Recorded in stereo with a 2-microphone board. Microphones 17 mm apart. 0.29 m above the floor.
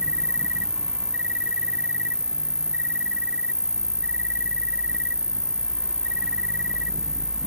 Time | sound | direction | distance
0.0 | an insect | 70° right (ahead or behind) | ?